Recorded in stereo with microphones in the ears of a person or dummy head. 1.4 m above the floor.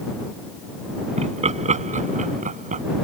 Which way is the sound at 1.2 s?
35° right (ahead or behind).